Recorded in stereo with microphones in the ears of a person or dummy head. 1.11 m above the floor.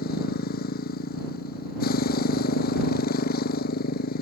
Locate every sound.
0.0 s a motorcycle: 50° left (ahead or behind)